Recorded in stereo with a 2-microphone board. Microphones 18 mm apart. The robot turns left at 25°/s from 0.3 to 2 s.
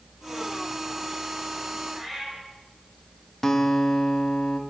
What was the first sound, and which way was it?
A cat meowing, 10° right (ahead or behind).